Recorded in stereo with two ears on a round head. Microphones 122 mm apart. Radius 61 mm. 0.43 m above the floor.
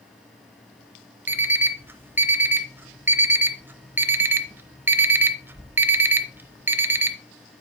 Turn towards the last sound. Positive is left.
turn(degrees=-15)  # may be behind; listen again after turning